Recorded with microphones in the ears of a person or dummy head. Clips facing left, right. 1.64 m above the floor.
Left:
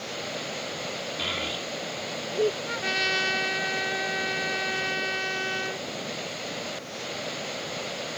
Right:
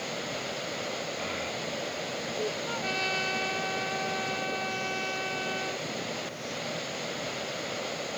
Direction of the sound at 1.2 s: 50° left (ahead or behind).